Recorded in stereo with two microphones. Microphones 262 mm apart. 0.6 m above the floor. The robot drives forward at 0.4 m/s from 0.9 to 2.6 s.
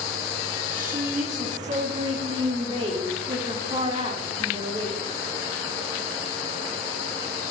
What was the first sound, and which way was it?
A woman speaking, 30° right (ahead or behind).